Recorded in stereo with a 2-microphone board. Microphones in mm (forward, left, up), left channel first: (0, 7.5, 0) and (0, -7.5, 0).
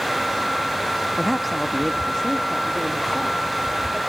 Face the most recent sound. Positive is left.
turn(degrees=35)  # may be behind; listen again after turning